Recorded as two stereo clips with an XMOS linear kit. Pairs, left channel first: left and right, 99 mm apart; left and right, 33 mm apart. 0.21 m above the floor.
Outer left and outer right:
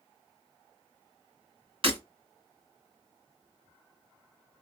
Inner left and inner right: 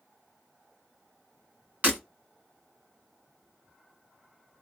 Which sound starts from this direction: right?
Breaking glass, at 1.8 s.